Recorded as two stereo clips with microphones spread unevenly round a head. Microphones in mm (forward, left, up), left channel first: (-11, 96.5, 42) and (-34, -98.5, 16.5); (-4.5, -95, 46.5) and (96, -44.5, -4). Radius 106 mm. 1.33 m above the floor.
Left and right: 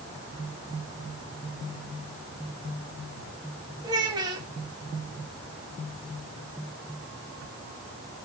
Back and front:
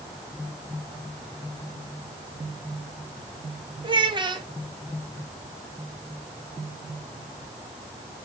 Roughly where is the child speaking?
Ahead right.